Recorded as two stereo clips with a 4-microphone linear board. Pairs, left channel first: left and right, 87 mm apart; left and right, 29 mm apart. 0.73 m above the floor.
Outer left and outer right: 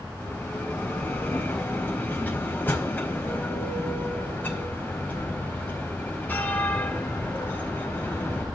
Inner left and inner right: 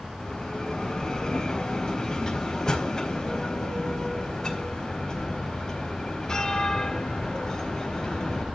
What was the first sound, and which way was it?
A bell, 25° left (ahead or behind).